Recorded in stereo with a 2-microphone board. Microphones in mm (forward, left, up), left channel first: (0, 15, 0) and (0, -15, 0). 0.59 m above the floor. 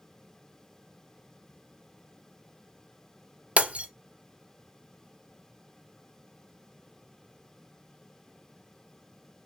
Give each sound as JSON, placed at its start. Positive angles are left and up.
{"t": 3.6, "sound": "breaking glass", "side_deg": -55, "distance_m": 0.7}